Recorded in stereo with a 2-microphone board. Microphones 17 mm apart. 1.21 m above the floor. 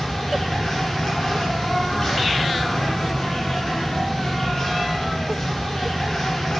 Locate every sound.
0.0 s an insect: 20° left (ahead or behind), 1.2 m